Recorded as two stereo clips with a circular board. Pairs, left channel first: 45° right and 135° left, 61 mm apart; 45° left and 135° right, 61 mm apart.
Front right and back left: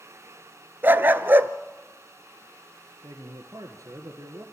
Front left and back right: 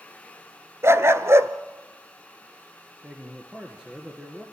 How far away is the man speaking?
About 2.5 m.